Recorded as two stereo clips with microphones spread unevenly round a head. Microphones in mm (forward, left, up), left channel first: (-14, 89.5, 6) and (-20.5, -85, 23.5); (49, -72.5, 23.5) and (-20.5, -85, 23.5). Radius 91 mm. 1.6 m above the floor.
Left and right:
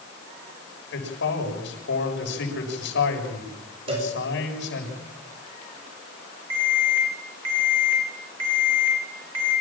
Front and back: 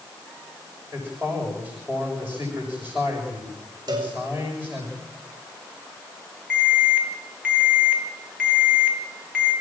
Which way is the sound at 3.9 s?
150° right.